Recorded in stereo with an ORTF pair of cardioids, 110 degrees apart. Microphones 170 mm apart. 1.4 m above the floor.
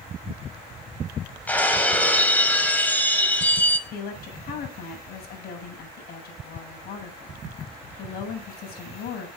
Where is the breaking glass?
10° left, 4 m.